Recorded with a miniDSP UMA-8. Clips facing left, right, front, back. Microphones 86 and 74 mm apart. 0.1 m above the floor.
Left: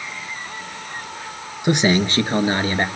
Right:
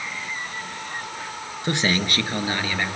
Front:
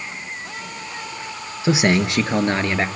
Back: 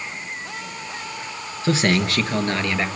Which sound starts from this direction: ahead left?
A man speaking, at 1.6 s.